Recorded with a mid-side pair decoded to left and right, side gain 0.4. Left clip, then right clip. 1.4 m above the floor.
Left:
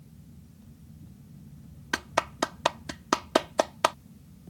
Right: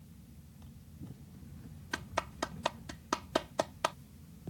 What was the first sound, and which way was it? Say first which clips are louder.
A clap: left 9 dB; 60° left.